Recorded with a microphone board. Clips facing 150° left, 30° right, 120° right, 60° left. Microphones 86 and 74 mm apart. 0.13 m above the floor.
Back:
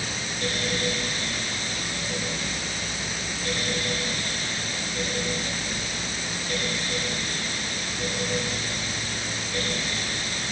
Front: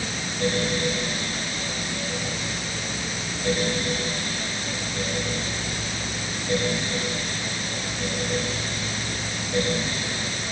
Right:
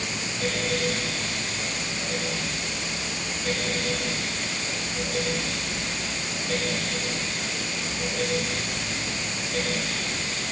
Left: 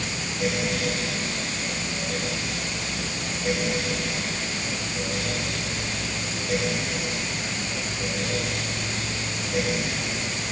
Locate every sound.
Only background noise.